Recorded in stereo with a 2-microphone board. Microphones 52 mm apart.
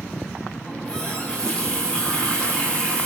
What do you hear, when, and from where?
0.7 s a running tap: 20° left (ahead or behind), 8 m